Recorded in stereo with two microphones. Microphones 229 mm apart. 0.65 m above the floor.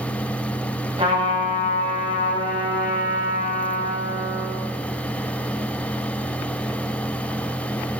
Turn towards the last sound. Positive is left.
turn(degrees=-25)  # may be behind; listen again after turning